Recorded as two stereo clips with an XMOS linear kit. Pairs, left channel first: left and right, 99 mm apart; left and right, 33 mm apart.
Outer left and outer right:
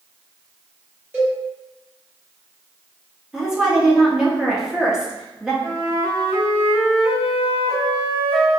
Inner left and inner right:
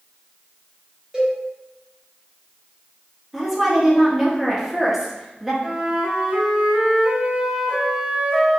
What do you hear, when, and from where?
1.1 s a cowbell: 20° right (ahead or behind), 1.7 m
3.3 s a woman speaking: 5° right (ahead or behind), 0.8 m
5.6 s a flute: 25° right (ahead or behind), 1.7 m